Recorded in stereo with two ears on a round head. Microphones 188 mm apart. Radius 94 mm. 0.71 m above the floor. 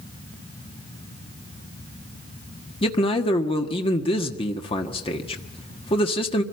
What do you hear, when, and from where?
2.8 s a man speaking: 25° left (ahead or behind), 1.4 m